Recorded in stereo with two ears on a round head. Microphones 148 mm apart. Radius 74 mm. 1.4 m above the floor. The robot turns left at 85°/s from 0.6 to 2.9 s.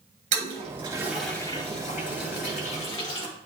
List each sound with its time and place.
0.3 s a toilet flushing: 45° right (ahead or behind), 3 m; by 3.3 s 30° left (ahead or behind), 3 m